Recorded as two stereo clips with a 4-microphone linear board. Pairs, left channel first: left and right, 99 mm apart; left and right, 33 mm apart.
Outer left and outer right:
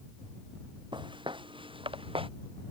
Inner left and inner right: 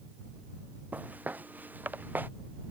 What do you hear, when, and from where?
0.9 s footsteps: 55° right (ahead or behind); by 2.3 s 65° right (ahead or behind)